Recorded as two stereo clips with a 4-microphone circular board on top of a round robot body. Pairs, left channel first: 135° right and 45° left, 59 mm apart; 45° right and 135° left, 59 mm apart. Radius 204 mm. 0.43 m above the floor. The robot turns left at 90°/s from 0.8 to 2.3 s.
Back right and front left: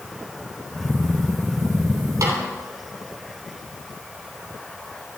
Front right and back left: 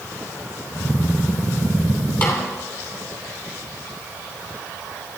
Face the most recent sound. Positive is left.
turn(degrees=5)